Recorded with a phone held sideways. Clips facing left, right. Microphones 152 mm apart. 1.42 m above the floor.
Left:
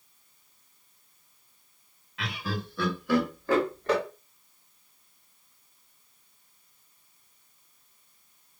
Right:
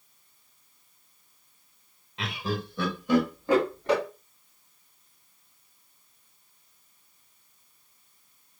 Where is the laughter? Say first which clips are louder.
Right 3 dB; 25° right (ahead or behind), 1.5 m; by 4.0 s 15° right (ahead or behind), 2.5 m.